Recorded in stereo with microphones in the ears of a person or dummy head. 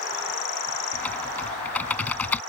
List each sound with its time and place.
0.9 s typing on a keyboard: 10° left (ahead or behind)